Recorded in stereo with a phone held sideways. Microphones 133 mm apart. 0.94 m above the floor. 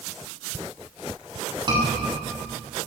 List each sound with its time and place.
1.7 s a scream: 35° right (ahead or behind), 8 m